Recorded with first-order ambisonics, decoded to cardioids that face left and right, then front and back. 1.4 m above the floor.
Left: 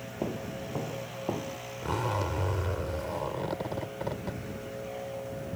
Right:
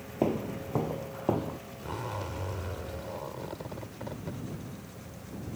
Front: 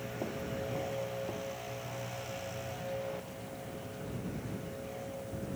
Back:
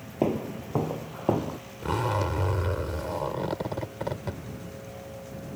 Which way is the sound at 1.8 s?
160° left.